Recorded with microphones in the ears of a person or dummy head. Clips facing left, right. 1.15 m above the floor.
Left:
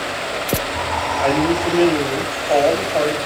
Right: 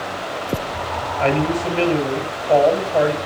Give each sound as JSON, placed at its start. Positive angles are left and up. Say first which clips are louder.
{"t": 1.2, "sound": "a man speaking", "louder": "left 1 dB", "side_deg": -25, "distance_m": 7.0}